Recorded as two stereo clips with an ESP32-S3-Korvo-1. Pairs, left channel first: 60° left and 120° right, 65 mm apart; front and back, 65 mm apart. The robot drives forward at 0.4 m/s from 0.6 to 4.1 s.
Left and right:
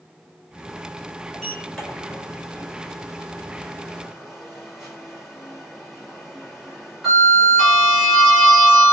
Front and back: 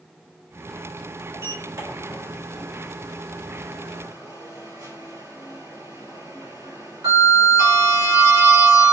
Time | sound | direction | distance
1.3 | a sliding door | 140° left | 1.3 m